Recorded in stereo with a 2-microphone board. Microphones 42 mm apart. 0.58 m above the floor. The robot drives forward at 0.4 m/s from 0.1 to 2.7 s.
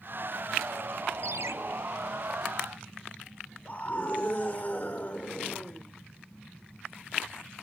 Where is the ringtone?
75° right (ahead or behind), 0.6 m; by 1.5 s 85° right, 0.6 m.